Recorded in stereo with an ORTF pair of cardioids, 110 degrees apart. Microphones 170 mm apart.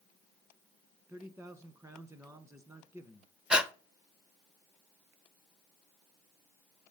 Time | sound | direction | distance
1.1 | a man speaking | 15° right | 1.2 m
3.5 | breathing | 5° right | 0.5 m